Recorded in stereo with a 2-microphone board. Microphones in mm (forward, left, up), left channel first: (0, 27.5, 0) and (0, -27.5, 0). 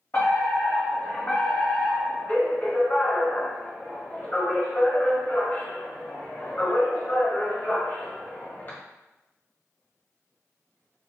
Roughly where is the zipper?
No zipper in this recording.